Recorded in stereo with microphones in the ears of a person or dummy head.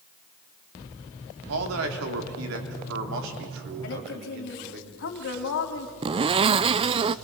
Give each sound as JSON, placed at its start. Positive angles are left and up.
{"t": 1.5, "sound": "a man speaking", "side_deg": -80, "distance_m": 3.0}
{"t": 3.8, "sound": "a woman speaking", "side_deg": 70, "distance_m": 3.0}
{"t": 6.0, "sound": "a zipper", "side_deg": -30, "distance_m": 0.6}